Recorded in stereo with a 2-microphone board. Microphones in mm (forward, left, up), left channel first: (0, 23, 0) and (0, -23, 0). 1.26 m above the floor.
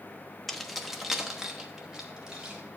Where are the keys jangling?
5° left (ahead or behind), 0.6 m; by 2.6 s 20° right (ahead or behind), 1.7 m.